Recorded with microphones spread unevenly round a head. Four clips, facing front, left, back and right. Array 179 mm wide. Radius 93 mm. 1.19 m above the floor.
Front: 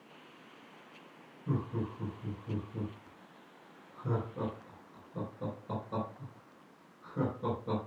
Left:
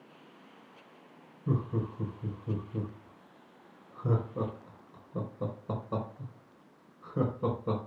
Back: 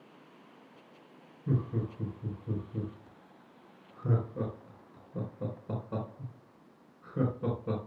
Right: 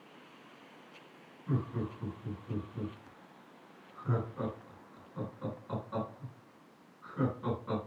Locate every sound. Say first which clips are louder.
1.5 s laughter: left 3 dB, back 2 dB; 105° left, 3.5 m